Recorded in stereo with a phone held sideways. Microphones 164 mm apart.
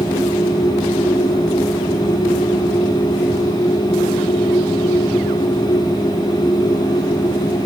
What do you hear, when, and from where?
0.0 s a machine running: 25° left (ahead or behind), 1.8 m